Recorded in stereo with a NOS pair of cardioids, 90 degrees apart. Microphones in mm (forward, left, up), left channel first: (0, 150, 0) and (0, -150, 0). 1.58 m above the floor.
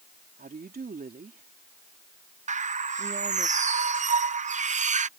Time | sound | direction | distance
0.4 | a woman speaking | 30° right | ?
2.5 | a bird | 25° right | ?